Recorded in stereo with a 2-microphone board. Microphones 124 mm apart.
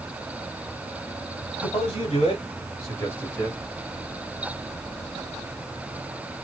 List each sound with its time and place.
1.6 s a man speaking: 45° left (ahead or behind), 1.8 m; by 3.6 s 10° left (ahead or behind), 1.7 m